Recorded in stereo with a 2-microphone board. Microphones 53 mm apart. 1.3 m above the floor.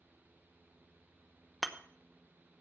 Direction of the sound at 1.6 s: Centre (ahead or behind).